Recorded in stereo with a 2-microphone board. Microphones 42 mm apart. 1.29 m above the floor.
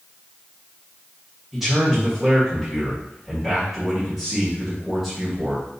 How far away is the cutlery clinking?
I don't hear cutlery clinking.